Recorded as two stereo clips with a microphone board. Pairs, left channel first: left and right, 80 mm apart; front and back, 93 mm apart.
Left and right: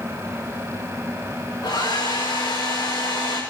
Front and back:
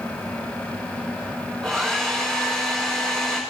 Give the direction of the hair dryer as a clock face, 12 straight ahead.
9 o'clock.